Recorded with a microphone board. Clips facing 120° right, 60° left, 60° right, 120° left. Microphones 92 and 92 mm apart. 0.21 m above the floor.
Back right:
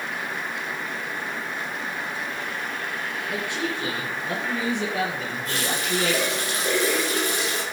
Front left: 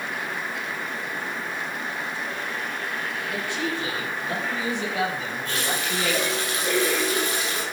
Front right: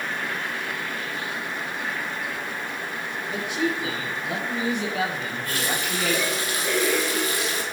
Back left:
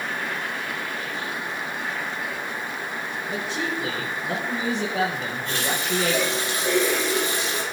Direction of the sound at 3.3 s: 175° left.